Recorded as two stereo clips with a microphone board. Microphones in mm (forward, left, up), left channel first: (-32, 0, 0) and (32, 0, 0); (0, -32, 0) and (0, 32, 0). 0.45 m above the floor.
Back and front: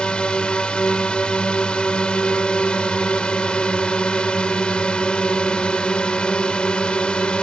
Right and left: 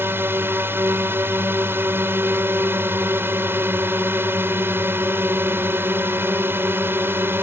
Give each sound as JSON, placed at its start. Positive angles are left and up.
{"t": 0.0, "sound": "a drone", "azimuth_deg": 115}